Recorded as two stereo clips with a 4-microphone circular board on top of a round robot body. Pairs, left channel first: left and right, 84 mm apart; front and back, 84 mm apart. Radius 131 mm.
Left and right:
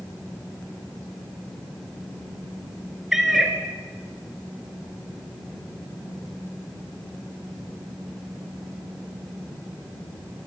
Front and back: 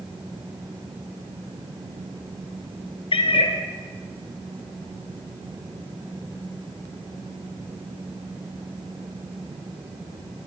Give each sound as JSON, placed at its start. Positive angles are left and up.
{"t": 3.1, "sound": "a cat meowing", "azimuth_deg": -5, "distance_m": 1.5}